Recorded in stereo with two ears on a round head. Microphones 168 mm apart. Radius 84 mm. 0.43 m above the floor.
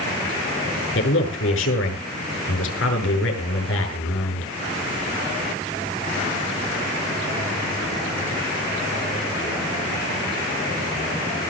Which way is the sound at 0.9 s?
75° left (ahead or behind).